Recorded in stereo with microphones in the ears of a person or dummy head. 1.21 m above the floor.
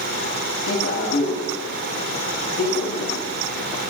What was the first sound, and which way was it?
A man speaking, 80° left.